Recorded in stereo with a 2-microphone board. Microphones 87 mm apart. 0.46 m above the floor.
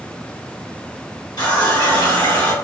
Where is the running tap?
50° left (ahead or behind), 1.1 m.